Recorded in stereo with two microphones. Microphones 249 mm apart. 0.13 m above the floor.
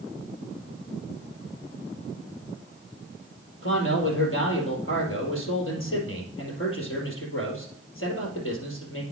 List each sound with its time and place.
3.6 s a man speaking: 55° left (ahead or behind), 3 m